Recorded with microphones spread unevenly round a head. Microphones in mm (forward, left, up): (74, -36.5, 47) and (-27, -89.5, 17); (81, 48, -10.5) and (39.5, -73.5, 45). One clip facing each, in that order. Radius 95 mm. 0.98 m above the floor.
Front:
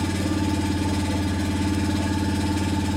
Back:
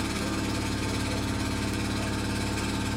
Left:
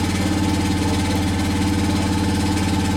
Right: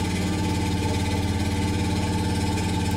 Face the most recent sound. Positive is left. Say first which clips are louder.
# front 6 dB, left 6 dB
turn(degrees=75)